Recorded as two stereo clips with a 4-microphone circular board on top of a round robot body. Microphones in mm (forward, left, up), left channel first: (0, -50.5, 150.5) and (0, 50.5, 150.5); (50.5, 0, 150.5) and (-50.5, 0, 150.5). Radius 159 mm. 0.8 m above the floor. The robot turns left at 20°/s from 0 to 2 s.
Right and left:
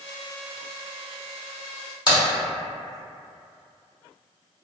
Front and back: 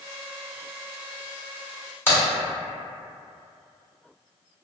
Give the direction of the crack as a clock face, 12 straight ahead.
2 o'clock.